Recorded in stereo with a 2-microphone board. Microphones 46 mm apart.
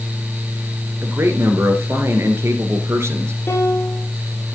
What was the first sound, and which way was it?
A man speaking, 65° right (ahead or behind).